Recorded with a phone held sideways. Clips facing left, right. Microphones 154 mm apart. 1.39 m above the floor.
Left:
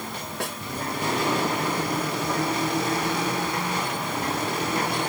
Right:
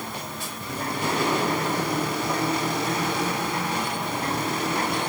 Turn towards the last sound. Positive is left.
turn(degrees=70)  # may be behind; listen again after turning